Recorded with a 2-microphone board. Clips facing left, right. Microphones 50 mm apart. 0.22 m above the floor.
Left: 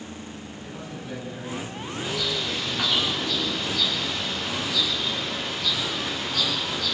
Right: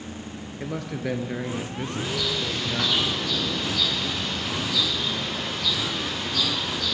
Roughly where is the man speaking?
Right.